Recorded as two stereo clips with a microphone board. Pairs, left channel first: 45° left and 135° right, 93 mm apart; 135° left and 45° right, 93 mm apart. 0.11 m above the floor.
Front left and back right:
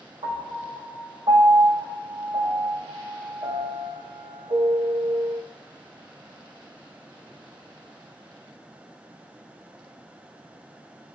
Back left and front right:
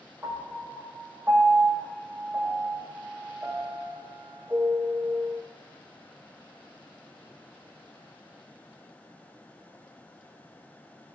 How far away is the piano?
About 4 m.